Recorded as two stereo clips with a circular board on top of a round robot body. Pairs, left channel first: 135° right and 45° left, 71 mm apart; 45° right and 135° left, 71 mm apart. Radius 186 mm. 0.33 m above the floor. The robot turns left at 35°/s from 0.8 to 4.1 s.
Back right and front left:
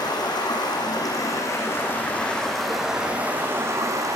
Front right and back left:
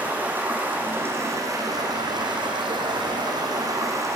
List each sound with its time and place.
0.0 s running water: 160° right, 5.5 m; by 4.2 s 85° left, 5.5 m